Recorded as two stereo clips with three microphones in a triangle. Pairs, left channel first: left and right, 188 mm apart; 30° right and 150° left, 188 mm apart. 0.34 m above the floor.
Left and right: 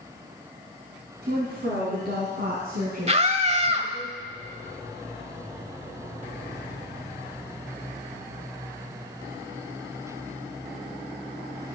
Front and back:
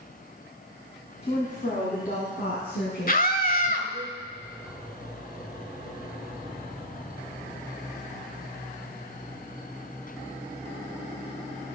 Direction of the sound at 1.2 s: 85° right.